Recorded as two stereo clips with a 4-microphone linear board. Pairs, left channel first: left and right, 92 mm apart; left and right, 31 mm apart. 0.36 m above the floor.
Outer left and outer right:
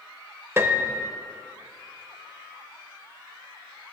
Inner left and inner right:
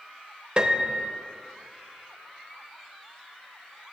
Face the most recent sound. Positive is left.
turn(degrees=-30)  # may be behind; listen again after turning